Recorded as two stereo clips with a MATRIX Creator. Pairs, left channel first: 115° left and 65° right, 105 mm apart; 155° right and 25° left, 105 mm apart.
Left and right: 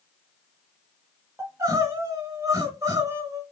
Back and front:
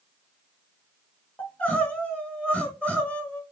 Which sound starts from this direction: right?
Crying, at 1.4 s.